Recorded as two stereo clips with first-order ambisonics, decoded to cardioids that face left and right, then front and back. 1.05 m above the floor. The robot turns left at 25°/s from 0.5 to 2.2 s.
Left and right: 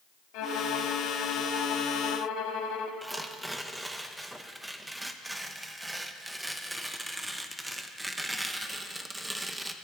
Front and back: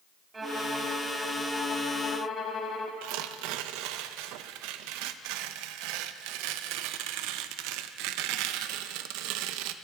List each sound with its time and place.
0.3 s a violin: 105° left, 1.5 m; by 2.9 s 65° left, 1.5 m
3.0 s tearing paper: 175° right, 0.6 m